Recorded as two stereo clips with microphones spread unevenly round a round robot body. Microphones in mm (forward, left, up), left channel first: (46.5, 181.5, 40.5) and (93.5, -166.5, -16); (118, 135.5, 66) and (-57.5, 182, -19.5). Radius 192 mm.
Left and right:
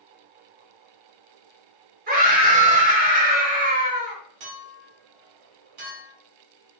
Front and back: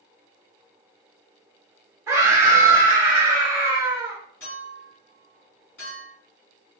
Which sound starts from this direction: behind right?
A scream, at 2.1 s.